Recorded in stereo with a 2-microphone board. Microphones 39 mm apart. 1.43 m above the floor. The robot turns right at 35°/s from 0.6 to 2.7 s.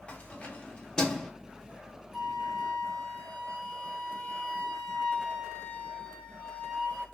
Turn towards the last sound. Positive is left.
turn(degrees=10)  # may be behind; listen again after turning